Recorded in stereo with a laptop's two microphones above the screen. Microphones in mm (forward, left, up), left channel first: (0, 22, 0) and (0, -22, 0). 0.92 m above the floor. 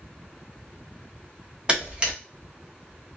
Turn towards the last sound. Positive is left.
turn(degrees=-20)  # may be behind; listen again after turning